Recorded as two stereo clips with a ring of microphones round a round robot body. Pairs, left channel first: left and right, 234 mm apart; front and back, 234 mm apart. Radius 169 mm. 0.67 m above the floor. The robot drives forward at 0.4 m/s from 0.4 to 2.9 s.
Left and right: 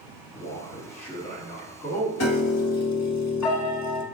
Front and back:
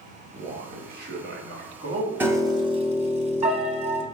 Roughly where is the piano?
Left.